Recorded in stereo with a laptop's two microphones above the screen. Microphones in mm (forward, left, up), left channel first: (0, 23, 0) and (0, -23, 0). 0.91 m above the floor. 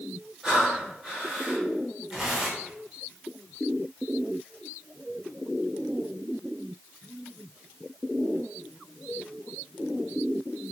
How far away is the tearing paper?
About 2.0 m.